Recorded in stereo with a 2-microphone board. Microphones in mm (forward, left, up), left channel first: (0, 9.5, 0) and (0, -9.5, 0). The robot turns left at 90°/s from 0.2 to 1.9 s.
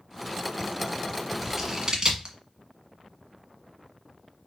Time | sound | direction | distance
1.4 | scissors | centre (ahead or behind) | 1.2 m